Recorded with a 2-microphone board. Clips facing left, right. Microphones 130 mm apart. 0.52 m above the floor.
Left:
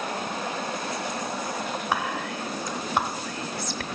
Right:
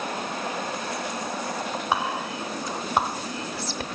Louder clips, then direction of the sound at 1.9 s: Right 2 dB; 15° right (ahead or behind).